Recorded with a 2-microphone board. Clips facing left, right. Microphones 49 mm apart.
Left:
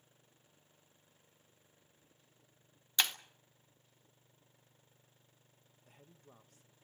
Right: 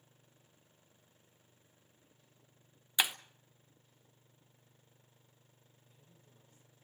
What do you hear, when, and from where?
3.0 s breaking glass: 10° right (ahead or behind), 0.8 m
5.8 s a man speaking: 70° left (ahead or behind), 1.9 m